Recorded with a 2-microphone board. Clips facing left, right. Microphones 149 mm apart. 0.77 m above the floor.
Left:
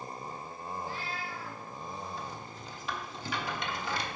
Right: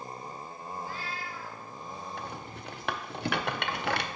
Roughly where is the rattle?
Right.